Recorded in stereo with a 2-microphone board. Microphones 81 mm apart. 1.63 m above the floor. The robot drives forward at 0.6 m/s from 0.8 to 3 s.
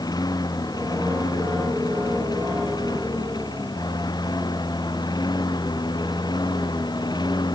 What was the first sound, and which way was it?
A lawn mower, 55° left (ahead or behind).